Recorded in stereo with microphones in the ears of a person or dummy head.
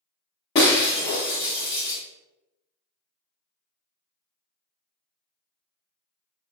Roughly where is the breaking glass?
Centre.